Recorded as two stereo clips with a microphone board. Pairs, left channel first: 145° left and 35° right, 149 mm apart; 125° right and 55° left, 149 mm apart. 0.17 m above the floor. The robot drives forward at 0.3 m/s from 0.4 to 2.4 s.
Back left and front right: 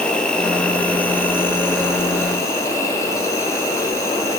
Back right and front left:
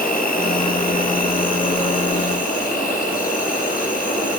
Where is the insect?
130° right, 1.6 m; by 4.4 s 145° right, 2 m.